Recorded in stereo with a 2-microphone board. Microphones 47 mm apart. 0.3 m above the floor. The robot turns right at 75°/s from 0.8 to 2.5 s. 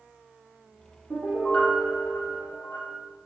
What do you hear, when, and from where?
1.1 s a piano: 20° right, 5 m; by 3.0 s 85° left, 5 m